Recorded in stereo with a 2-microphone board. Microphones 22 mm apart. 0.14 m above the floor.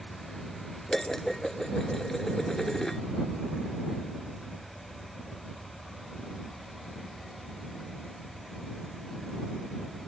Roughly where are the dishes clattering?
Left.